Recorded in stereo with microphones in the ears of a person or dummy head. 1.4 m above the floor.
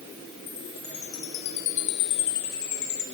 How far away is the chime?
About 0.9 m.